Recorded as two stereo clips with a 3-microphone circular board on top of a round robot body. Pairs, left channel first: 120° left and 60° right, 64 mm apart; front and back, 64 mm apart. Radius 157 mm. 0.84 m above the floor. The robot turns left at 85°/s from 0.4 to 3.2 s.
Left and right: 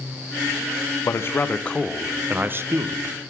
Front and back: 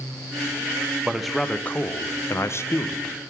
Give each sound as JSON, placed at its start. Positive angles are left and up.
{"t": 1.0, "sound": "a man speaking", "azimuth_deg": 110, "distance_m": 0.6}